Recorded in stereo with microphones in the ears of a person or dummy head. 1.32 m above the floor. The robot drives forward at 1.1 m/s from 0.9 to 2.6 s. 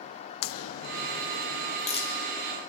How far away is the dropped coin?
No dropped coin in this recording.